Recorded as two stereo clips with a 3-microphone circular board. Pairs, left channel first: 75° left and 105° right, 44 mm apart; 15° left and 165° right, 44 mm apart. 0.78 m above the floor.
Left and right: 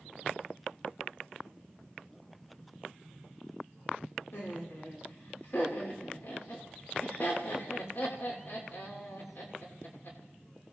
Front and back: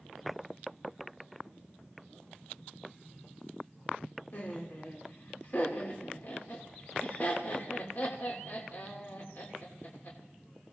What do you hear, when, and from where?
4.3 s laughter: 55° left, 2.5 m